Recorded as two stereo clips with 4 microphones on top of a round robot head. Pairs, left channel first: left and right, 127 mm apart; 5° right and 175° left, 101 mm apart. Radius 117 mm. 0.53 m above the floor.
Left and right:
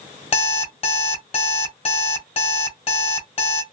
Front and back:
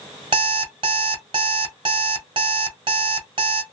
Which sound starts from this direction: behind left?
An alarm clock, at 0.3 s.